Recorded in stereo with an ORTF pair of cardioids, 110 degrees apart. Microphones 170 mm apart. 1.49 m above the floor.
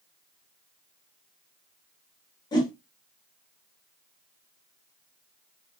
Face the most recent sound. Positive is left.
turn(degrees=25)